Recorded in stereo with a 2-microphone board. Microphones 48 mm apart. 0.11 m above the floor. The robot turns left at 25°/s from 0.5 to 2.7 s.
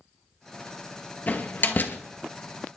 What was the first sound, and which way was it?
A door slam, 40° left (ahead or behind).